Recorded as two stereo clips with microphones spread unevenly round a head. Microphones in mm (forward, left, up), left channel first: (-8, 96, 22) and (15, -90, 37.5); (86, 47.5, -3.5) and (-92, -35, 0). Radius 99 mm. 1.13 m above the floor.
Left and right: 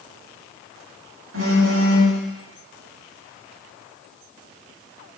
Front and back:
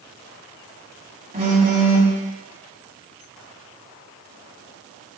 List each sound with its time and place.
1.3 s a phone buzzing: 100° right, 2.5 m